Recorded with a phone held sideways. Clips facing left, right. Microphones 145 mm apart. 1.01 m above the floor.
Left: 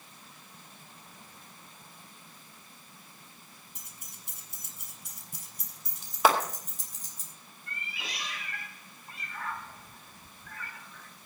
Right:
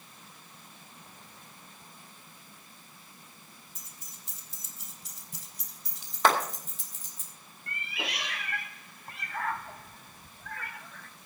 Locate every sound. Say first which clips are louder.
3.8 s keys jangling: even; 70° left (ahead or behind), 3.5 m; by 7.2 s 40° left (ahead or behind), 3.5 m
6.2 s a clap: left 1 dB; 5° left (ahead or behind), 2.5 m
7.7 s a cat meowing: right 5 dB; 65° right (ahead or behind), 0.9 m